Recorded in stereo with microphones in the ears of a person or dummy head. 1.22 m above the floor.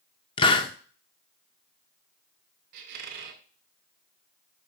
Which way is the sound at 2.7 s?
55° right (ahead or behind).